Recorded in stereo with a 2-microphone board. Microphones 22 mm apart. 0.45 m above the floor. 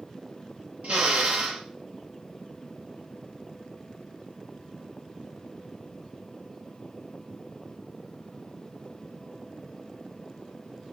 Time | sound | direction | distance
0.8 | a drill | 75° right (ahead or behind) | 7 m